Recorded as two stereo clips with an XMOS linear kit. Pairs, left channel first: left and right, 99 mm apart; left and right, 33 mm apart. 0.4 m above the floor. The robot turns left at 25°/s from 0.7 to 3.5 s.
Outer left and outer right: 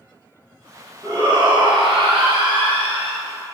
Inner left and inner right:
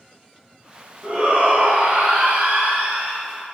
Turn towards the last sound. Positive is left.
turn(degrees=-110)